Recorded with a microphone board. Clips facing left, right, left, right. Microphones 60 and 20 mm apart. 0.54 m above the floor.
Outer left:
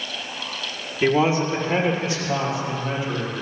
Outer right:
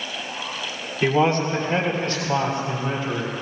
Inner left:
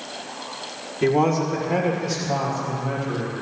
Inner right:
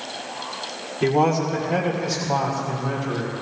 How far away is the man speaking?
About 1.4 m.